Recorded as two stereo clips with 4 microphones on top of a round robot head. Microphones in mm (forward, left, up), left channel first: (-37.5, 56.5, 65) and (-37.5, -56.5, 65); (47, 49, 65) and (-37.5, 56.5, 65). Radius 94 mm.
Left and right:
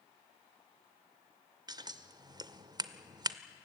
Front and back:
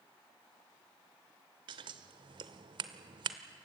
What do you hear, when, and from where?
1.7 s scissors: 145° right, 0.7 m